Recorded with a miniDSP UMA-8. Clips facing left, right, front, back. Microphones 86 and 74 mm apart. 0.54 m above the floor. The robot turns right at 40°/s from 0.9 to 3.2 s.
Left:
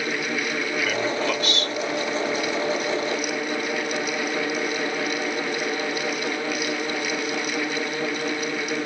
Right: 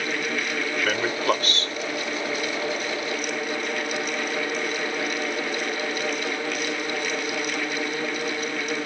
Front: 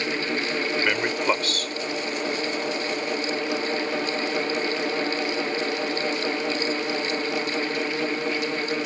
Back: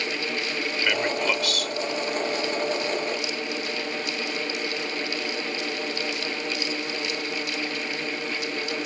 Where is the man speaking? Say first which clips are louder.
Right 2 dB, back 1 dB; 65° right; by 1.8 s 35° right.